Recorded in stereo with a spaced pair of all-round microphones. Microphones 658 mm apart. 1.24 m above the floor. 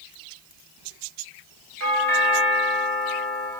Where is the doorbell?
65° right (ahead or behind), 2.5 m.